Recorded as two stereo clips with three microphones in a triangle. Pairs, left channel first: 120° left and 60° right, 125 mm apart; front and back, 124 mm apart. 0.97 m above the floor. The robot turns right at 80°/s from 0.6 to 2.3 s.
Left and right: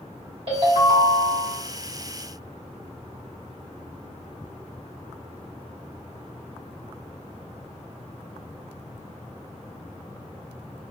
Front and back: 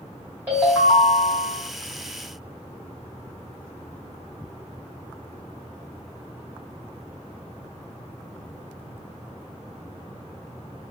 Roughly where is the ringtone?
Right.